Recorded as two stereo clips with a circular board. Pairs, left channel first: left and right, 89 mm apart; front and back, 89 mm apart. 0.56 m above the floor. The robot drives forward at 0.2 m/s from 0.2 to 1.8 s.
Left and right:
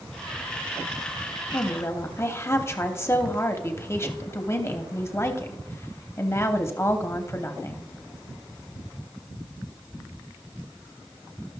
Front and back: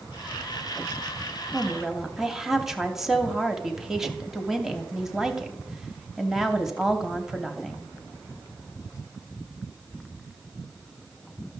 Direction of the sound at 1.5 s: 95° left.